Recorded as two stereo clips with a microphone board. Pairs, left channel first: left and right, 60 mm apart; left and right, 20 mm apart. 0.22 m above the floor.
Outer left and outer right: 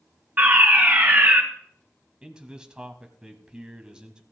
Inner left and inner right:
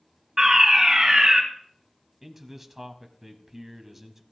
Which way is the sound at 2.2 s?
15° right (ahead or behind).